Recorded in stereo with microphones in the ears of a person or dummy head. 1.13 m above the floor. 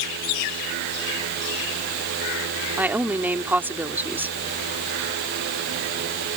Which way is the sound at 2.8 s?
10° right (ahead or behind).